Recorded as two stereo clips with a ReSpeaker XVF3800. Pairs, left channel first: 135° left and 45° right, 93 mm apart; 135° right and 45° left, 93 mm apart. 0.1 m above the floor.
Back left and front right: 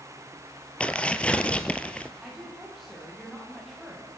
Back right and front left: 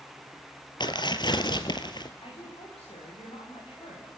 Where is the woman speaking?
130° right, 10 m.